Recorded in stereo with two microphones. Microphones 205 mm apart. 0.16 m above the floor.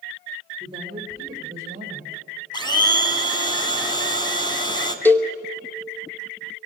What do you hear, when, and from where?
0.6 s a woman speaking: 20° right (ahead or behind), 7.5 m; by 2.4 s 35° right (ahead or behind), 8.5 m
2.5 s a blender: 20° left (ahead or behind), 1.7 m
5.0 s a cowbell: 10° left (ahead or behind), 1.1 m